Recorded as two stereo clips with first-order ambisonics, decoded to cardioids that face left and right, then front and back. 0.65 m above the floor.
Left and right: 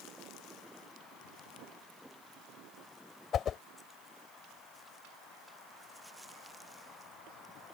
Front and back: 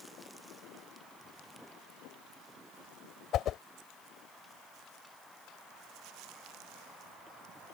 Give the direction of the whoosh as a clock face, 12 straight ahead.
11 o'clock.